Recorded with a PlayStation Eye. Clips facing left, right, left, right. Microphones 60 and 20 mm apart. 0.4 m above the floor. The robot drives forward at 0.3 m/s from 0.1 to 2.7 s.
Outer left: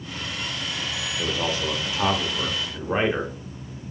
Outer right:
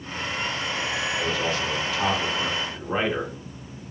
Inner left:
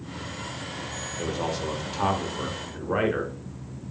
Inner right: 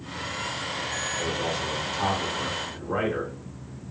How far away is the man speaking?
About 0.8 m.